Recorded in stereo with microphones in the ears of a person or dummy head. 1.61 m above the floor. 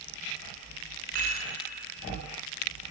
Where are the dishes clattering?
55° right (ahead or behind), 3 m.